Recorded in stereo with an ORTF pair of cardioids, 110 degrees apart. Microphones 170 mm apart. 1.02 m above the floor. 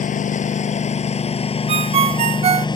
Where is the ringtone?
40° right.